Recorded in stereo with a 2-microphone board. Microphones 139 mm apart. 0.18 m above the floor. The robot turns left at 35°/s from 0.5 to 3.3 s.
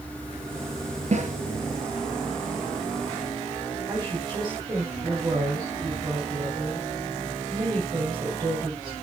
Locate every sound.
1.1 s a snare drum: 55° right (ahead or behind), 2.5 m; by 1.3 s 60° right (ahead or behind), 2.5 m
3.9 s a woman speaking: 30° right (ahead or behind), 7 m